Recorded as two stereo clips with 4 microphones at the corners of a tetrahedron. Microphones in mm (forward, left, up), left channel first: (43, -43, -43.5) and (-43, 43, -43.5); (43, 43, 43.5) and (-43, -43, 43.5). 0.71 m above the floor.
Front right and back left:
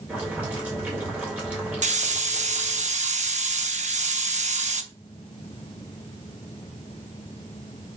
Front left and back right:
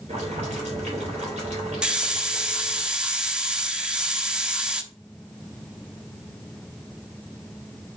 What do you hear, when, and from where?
0.1 s boiling: 150° right, 3.5 m
1.8 s a hiss: 140° left, 0.8 m